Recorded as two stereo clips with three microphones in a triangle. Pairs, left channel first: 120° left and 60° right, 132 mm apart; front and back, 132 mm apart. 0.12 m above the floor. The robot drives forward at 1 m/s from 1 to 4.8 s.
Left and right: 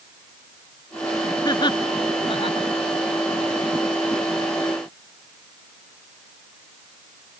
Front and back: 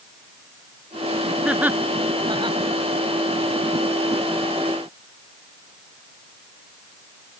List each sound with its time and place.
1.4 s laughter: 100° left; by 2.7 s 150° left